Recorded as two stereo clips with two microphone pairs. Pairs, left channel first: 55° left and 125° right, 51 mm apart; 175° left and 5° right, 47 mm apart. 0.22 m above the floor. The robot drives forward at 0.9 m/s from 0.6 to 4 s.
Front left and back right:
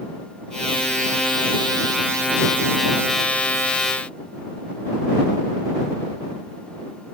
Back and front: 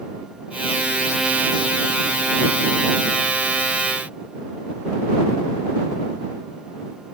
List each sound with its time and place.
Only background noise.